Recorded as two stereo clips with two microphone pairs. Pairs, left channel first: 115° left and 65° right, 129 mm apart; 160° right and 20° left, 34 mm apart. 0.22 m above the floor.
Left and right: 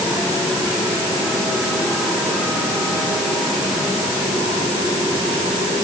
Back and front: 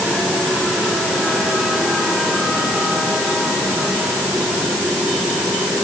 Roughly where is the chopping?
No chopping in this recording.